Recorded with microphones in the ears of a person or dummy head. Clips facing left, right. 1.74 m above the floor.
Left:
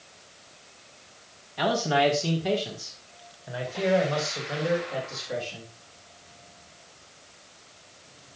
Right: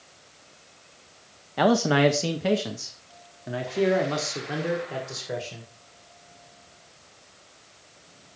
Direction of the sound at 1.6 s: 60° right (ahead or behind).